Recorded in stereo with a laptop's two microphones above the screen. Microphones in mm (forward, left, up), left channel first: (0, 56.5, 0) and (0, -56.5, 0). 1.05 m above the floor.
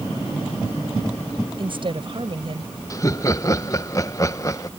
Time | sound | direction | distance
1.6 | a woman speaking | 50° right (ahead or behind) | ?
2.9 | laughter | 30° left (ahead or behind) | ?